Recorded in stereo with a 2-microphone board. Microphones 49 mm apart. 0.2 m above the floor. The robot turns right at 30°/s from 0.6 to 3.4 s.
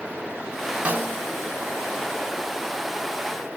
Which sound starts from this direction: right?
A snare drum, at 0.8 s.